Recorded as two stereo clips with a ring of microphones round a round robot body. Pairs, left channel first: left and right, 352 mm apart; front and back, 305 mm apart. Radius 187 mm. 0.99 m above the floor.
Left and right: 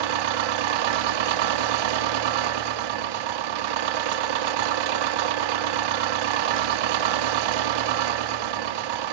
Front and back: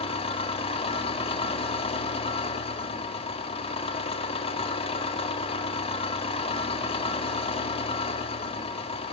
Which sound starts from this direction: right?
An engine running, at 0.0 s.